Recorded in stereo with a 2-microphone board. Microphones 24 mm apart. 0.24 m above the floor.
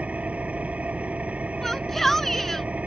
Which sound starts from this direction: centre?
A shout, at 1.6 s.